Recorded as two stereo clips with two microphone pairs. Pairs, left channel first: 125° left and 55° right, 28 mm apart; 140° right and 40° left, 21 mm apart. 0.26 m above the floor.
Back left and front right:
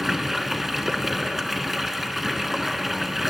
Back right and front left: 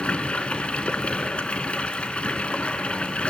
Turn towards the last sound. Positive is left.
turn(degrees=-140)